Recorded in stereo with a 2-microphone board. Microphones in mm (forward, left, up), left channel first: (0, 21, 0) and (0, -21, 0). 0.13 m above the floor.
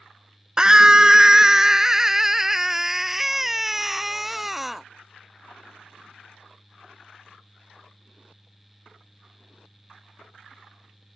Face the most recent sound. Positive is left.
turn(degrees=-5)  # may be behind; listen again after turning